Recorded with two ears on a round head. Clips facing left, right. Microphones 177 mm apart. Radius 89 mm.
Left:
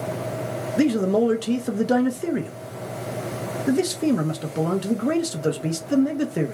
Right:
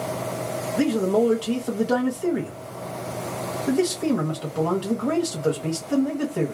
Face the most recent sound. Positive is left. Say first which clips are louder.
# left 1 dB
turn(degrees=25)  # may be behind; listen again after turning